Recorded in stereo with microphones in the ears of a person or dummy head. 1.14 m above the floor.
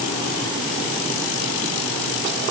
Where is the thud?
No thud in this recording.